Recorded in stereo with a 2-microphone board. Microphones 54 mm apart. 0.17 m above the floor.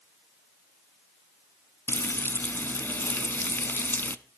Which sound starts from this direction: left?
Frying, at 1.9 s.